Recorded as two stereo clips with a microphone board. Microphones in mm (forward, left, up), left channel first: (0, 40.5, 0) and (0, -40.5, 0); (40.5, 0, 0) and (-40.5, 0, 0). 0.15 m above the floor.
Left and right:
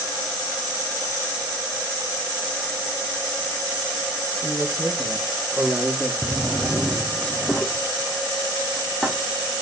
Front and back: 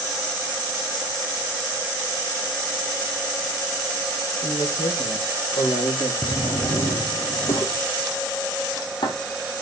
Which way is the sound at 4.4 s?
Straight ahead.